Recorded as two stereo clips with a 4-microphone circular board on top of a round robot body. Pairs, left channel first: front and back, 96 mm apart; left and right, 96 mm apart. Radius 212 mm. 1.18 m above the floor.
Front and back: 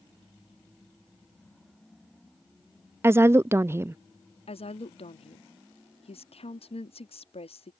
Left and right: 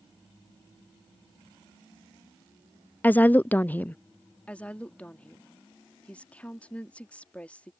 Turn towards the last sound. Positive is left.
turn(degrees=15)